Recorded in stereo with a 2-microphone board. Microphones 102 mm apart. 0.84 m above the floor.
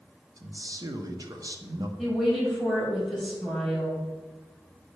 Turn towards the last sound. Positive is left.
turn(degrees=-5)  # may be behind; listen again after turning